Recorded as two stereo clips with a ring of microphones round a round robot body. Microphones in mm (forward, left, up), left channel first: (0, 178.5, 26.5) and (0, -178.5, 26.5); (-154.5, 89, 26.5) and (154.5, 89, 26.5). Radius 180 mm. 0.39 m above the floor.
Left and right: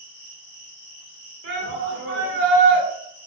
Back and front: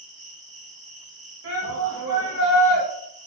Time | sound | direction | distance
0.0 | an insect | 60° left | 0.9 m
1.4 | a shout | 40° right | 1.3 m